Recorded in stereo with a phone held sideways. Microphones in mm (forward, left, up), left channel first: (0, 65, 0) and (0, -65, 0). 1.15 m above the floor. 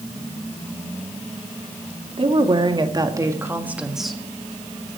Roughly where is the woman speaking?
Right.